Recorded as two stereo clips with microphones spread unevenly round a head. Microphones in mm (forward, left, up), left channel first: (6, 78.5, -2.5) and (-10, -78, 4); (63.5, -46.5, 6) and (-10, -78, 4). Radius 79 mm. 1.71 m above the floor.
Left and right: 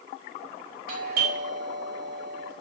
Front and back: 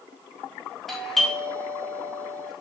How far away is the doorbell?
About 3.5 m.